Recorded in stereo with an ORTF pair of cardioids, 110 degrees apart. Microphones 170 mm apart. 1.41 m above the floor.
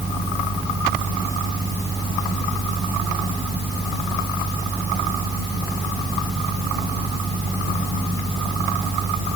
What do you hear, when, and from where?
0.0 s a fan: 20° right